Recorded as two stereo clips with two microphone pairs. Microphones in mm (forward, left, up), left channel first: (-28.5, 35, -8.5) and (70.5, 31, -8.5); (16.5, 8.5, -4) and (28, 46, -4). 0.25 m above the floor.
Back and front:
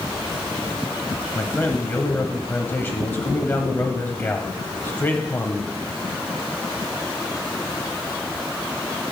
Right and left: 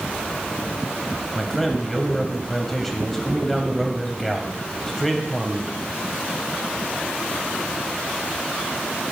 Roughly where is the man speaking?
Behind.